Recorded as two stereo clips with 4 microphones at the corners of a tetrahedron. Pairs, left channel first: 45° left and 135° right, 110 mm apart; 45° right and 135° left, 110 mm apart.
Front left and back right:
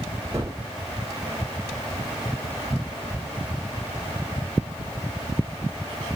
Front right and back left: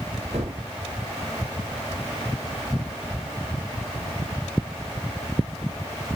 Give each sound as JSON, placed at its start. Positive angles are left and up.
{"t": 0.3, "sound": "a gunshot", "azimuth_deg": 165, "distance_m": 1.2}